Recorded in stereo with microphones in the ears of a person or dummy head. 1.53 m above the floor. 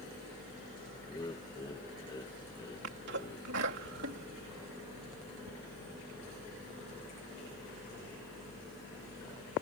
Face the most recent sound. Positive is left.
turn(degrees=-55)  # may be behind; listen again after turning